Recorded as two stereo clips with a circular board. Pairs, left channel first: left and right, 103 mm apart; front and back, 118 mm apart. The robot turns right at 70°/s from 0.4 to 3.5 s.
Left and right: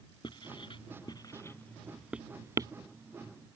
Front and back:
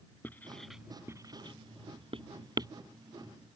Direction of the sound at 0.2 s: 70° left.